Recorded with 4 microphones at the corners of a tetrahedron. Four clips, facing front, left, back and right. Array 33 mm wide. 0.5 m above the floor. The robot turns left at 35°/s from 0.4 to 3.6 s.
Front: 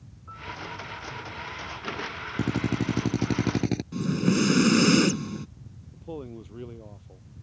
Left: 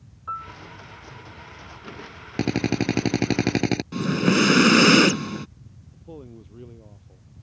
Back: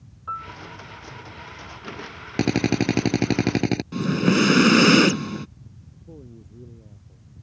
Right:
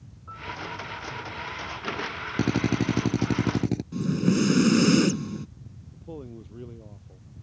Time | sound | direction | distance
0.3 | a piano | 140° left | ?
2.4 | a drill | 165° left | ?
3.9 | breathing | 125° left | ?
5.9 | a man speaking | straight ahead | ?